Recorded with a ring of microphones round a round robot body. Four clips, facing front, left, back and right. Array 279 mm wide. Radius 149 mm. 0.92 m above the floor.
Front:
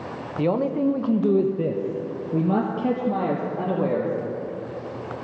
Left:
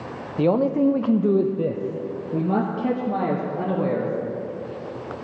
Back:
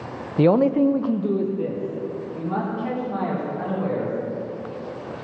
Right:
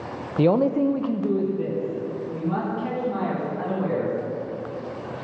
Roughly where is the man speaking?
Behind.